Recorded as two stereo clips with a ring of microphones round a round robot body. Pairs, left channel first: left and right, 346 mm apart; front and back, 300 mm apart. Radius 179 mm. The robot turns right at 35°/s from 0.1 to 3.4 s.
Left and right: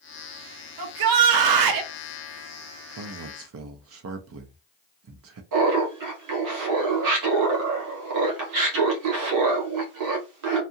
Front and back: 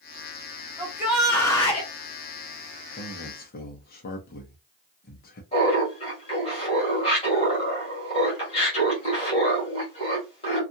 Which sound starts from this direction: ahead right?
A man speaking, at 3.0 s.